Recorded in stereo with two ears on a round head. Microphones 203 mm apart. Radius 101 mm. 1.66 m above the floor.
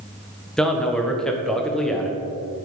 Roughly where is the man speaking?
Centre.